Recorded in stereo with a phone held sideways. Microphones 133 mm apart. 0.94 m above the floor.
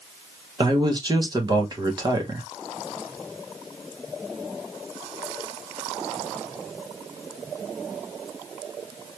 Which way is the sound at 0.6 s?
30° right (ahead or behind).